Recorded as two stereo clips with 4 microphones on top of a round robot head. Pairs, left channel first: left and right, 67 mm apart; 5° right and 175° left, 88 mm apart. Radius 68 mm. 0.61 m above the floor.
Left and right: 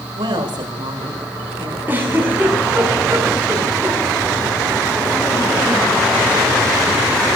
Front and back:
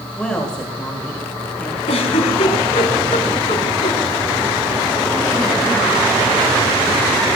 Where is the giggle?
20° right, 6 m.